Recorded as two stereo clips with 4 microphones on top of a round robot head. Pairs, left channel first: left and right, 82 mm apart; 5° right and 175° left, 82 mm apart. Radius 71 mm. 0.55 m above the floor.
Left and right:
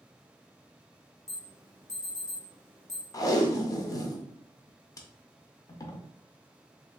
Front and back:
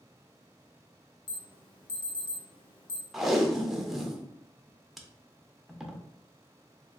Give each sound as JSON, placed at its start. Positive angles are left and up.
{"t": 1.3, "sound": "an alarm", "azimuth_deg": 5, "distance_m": 0.7}
{"t": 3.1, "sound": "tape being pulled", "azimuth_deg": 90, "distance_m": 0.6}